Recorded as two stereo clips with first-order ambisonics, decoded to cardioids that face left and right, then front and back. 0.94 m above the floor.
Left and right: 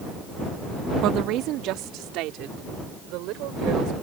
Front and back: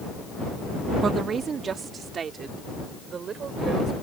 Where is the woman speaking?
120° right; by 3.9 s 115° right.